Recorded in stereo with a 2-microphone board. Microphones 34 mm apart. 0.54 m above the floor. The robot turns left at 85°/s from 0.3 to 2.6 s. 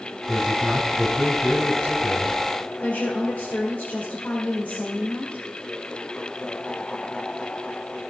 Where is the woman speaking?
55° left (ahead or behind), 2 m.